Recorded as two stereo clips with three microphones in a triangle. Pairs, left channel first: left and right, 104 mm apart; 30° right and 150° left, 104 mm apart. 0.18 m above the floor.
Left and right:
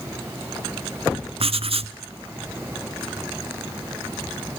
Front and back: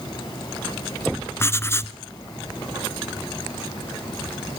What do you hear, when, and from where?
1.4 s writing: 95° right, 0.7 m